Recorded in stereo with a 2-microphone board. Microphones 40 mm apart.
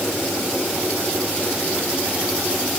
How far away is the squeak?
I don't hear a squeak.